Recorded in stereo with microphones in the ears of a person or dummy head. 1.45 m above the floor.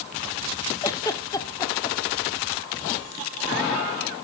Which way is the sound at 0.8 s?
15° left (ahead or behind).